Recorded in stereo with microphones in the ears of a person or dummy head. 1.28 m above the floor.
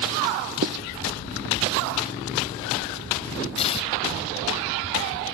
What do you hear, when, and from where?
0.6 s writing: 50° right (ahead or behind)
3.6 s tearing paper: 35° left (ahead or behind)